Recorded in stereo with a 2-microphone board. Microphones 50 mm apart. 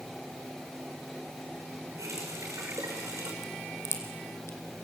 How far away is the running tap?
About 6 m.